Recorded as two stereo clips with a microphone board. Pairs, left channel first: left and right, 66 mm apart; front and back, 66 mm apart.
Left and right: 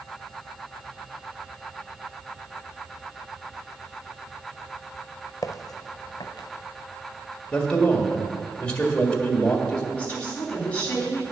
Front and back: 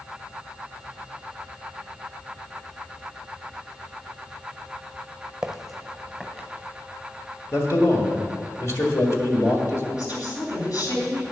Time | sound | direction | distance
5.4 | footsteps | 100° left | 0.7 m
7.5 | a man speaking | 20° left | 1.6 m
9.9 | a woman speaking | 25° left | 3.5 m